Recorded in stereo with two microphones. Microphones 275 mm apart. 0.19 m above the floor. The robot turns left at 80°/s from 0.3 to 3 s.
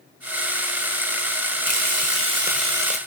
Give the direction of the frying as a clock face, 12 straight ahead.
3 o'clock.